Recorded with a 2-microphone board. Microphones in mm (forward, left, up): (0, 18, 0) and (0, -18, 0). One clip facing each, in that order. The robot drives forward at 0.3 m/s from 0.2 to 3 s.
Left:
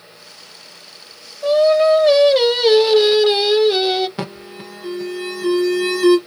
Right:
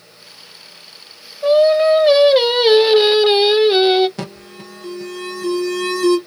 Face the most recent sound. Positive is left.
turn(degrees=20)  # may be behind; listen again after turning